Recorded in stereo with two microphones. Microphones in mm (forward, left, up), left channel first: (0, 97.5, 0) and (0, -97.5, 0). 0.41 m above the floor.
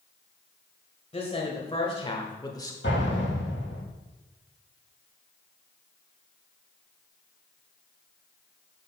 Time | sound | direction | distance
1.1 | a woman speaking | 35° left (ahead or behind) | 1.6 m
2.8 | an explosion | 70° left (ahead or behind) | 4.5 m